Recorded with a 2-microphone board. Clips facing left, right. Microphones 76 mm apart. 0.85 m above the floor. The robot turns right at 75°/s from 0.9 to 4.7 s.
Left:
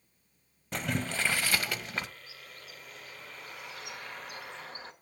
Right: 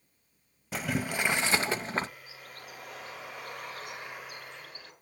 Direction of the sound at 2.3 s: 155° right.